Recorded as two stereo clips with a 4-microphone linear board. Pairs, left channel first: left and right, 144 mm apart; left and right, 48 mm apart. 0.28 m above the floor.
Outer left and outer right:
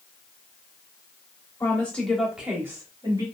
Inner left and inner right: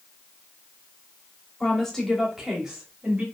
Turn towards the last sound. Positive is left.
turn(degrees=-30)  # may be behind; listen again after turning